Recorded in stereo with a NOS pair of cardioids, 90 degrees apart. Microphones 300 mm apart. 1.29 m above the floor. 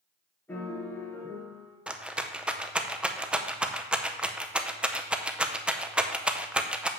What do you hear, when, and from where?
0.5 s a piano: 10° left, 4 m
1.9 s a rattle: 5° right, 0.7 m